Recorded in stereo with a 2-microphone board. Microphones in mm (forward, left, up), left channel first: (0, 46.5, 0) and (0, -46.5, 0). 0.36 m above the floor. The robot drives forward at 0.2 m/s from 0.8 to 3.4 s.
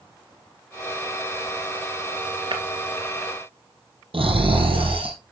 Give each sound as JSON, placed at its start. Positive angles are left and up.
{"t": 2.5, "sound": "breaking glass", "side_deg": -60, "distance_m": 1.8}
{"t": 4.1, "sound": "snoring", "side_deg": -70, "distance_m": 4.0}